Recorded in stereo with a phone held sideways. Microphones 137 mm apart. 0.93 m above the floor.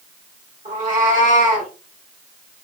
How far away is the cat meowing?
About 1.4 m.